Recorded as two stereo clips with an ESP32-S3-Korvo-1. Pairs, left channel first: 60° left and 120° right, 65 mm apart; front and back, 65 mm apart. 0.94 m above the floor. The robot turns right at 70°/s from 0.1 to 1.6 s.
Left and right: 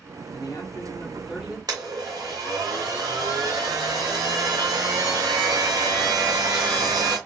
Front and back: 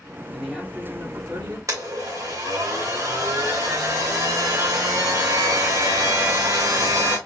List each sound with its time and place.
0.3 s a man speaking: 85° left, 2.0 m; by 1.6 s 170° left, 2.0 m
1.7 s a blender: 140° right, 1.8 m